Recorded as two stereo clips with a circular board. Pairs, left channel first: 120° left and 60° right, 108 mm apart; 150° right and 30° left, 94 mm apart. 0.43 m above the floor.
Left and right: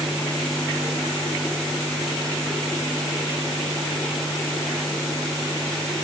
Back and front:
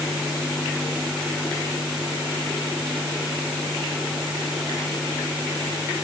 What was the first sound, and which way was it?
Only background noise.